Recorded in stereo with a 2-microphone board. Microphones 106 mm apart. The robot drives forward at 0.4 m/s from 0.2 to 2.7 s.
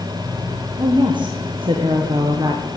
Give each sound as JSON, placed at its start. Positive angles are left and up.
{"t": 0.8, "sound": "a woman speaking", "side_deg": -45, "distance_m": 0.9}